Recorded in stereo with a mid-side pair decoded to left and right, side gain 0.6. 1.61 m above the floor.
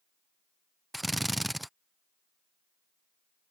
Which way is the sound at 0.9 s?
5° right.